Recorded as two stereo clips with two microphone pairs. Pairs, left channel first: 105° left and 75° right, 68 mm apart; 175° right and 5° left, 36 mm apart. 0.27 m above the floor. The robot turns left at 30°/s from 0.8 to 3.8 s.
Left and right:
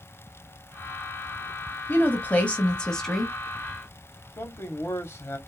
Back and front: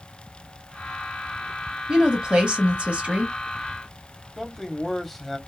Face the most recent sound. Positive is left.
turn(degrees=105)